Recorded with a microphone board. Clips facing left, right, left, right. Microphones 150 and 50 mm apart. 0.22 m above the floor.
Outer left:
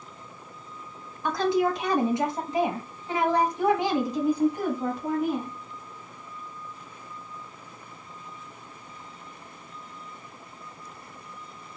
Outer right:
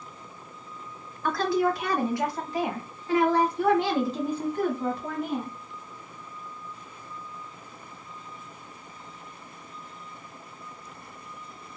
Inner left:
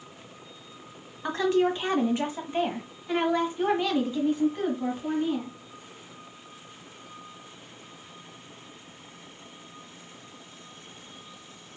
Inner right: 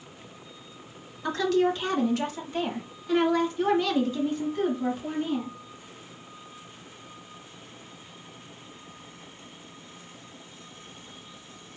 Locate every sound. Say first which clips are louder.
1.2 s a woman speaking: outer left 1 dB, even; 20° left (ahead or behind), 1.4 m; by 5.6 s 10° left (ahead or behind), 1.9 m